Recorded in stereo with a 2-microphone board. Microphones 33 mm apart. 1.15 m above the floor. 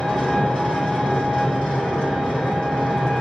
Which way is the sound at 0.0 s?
35° left (ahead or behind).